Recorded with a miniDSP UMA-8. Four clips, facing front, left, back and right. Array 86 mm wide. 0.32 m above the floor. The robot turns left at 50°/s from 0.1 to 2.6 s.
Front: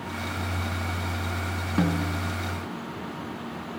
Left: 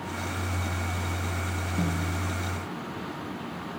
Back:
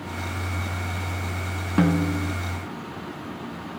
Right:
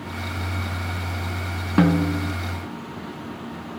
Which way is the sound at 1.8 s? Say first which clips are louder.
Right 13 dB, back 5 dB; 105° right.